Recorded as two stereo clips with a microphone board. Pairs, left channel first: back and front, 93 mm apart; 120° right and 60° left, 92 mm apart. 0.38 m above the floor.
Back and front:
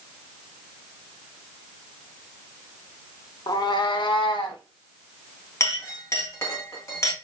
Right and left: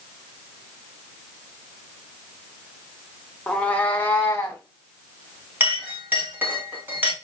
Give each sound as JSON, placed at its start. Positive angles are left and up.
{"t": 3.5, "sound": "a cat meowing", "azimuth_deg": 165, "distance_m": 0.5}
{"t": 5.6, "sound": "a clink", "azimuth_deg": 125, "distance_m": 1.3}